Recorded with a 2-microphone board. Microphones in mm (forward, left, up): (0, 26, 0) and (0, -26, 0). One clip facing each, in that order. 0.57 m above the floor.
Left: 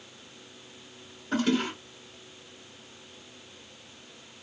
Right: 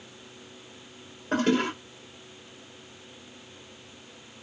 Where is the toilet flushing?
40° right (ahead or behind), 2 m.